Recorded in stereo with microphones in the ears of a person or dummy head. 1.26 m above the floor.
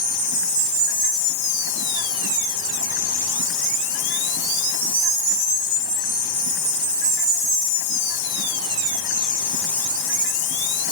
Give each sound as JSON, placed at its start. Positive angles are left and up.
{"t": 0.0, "sound": "an insect", "side_deg": 60}